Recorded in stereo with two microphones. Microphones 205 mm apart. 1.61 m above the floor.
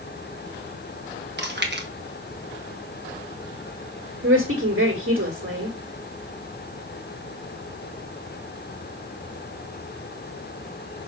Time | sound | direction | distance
1.4 | chewing | 55° right (ahead or behind) | 1.4 m
4.2 | a woman speaking | 80° right | 2.5 m